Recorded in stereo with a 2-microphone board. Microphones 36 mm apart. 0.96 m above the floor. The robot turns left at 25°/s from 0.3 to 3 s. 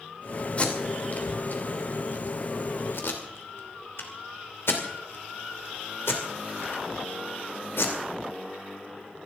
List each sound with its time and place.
0.6 s tape being pulled: 35° left (ahead or behind), 2.5 m; by 8.0 s 85° left, 2.5 m